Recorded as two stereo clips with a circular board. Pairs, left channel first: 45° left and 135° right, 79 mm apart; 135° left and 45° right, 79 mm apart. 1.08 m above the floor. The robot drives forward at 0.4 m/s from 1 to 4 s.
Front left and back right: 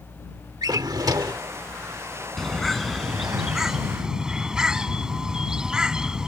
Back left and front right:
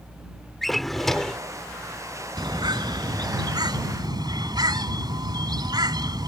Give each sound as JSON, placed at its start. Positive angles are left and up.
{"t": 0.6, "sound": "a drawer", "azimuth_deg": -140}
{"t": 2.4, "sound": "a bird", "azimuth_deg": -40}